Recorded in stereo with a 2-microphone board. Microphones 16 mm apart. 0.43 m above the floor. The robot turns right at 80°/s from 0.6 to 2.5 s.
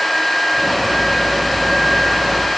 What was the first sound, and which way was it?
Only background noise.